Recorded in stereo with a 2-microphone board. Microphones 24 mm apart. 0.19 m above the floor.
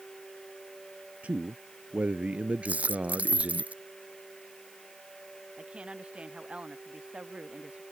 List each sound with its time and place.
1.2 s a man speaking: 70° right (ahead or behind); by 3.6 s 60° right (ahead or behind)
2.6 s a dropped coin: 85° right
5.6 s a woman speaking: 50° right (ahead or behind)